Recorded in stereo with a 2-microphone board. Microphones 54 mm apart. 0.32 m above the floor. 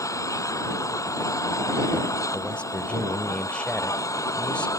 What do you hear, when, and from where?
0.0 s an engine running: 85° left
2.3 s a man speaking: 20° left (ahead or behind)